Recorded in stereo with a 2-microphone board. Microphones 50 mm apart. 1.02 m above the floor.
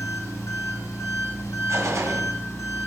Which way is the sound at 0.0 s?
75° left (ahead or behind).